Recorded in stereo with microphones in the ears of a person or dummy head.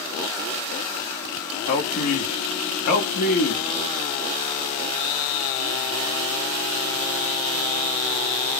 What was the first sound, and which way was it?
A man speaking, 50° left (ahead or behind).